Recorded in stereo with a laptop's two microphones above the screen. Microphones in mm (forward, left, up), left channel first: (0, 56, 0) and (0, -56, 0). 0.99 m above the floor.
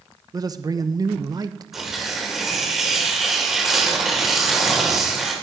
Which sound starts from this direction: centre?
Tearing paper, at 1.7 s.